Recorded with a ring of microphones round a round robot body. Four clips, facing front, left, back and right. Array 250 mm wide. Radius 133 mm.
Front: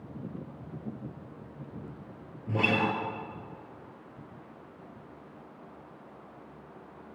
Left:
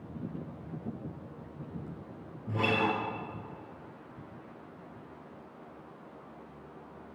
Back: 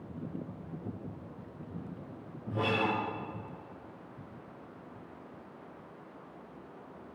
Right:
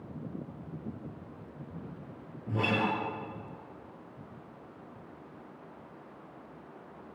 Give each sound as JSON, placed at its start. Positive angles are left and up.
{"t": 2.5, "sound": "a guitar", "azimuth_deg": 5, "distance_m": 8.0}